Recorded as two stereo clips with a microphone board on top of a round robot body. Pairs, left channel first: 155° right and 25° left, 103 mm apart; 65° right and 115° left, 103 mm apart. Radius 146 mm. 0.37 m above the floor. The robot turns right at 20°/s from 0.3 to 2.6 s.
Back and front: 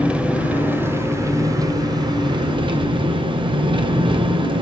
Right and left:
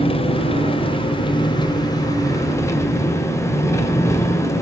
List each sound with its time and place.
0.0 s an engine running: 55° right, 2 m; by 4.6 s 10° right, 2 m